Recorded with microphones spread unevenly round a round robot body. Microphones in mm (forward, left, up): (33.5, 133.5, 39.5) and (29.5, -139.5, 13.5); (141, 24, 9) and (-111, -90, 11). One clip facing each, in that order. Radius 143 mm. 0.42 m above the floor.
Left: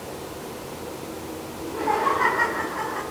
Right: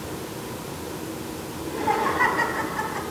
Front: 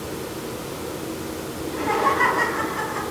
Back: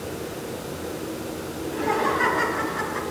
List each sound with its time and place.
1.6 s laughter: 55° right, 3.5 m; by 3.0 s 65° right, 4.5 m